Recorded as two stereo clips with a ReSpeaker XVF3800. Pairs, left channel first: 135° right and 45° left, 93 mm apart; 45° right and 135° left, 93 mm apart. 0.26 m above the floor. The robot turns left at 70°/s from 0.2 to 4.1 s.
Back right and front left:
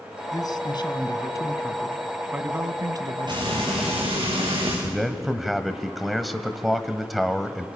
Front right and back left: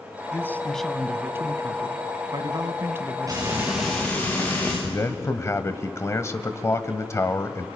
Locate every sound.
0.3 s a man speaking: 95° right, 1.7 m; by 4.3 s straight ahead, 1.7 m
3.3 s frying: 85° left, 9 m; by 4.7 s 25° left, 9 m
4.8 s a man speaking: 45° right, 1.3 m